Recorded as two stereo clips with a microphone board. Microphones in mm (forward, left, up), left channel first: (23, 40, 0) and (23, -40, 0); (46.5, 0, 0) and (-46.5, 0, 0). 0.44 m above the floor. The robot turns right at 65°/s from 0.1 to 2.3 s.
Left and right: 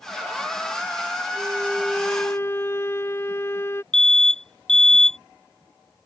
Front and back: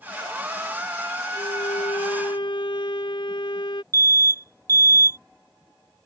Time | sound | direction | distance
1.3 | a violin | 30° right | ?
3.9 | an alarm | 170° left | ?